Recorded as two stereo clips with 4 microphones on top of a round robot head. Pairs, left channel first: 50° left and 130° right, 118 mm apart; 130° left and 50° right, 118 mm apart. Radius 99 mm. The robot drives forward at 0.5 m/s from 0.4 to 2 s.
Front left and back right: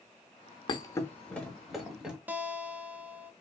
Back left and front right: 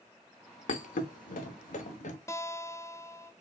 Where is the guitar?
170° left, 0.7 m.